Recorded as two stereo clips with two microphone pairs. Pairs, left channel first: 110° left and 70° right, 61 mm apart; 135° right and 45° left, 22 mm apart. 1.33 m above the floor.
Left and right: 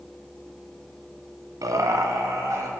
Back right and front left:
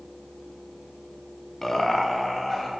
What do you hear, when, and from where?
1.6 s laughter: 65° right, 0.9 m